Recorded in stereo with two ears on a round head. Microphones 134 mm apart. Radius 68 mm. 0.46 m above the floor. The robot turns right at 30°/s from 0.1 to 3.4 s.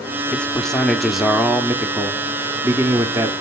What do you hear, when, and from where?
0.3 s a man speaking: 10° left (ahead or behind), 0.9 m; by 3.3 s 20° right (ahead or behind), 0.9 m